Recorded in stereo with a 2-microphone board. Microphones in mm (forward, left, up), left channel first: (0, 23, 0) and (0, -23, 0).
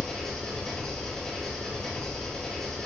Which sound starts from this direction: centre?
An engine running, at 0.0 s.